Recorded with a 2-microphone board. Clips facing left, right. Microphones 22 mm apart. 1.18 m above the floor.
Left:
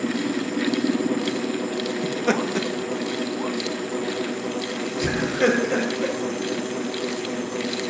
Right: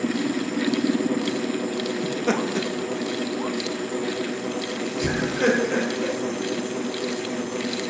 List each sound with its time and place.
2.0 s laughter: 10° left (ahead or behind), 1.9 m; by 6.1 s 5° left (ahead or behind), 5 m